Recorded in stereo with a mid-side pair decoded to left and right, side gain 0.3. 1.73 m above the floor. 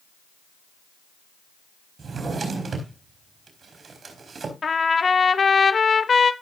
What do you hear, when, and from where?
2.0 s a drawer: 60° right, 4 m
4.6 s a trumpet: 50° left, 1.3 m